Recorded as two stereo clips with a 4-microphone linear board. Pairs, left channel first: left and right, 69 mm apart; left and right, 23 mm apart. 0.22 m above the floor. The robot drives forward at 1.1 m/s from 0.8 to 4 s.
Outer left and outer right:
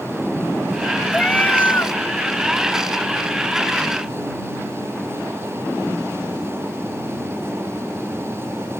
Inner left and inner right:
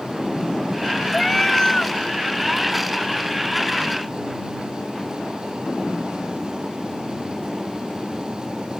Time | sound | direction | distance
1.1 | a cat meowing | 20° left (ahead or behind) | ?